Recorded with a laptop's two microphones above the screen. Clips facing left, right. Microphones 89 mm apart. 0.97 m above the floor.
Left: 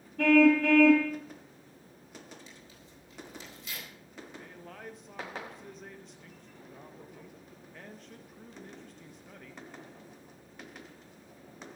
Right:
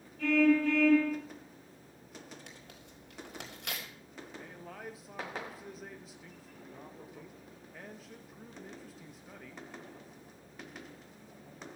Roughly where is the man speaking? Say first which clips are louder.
Right 2 dB; centre.